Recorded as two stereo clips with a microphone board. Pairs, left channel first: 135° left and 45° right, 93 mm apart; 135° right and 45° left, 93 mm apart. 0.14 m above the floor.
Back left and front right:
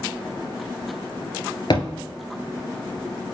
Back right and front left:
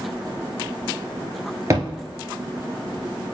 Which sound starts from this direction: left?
A thud, at 1.7 s.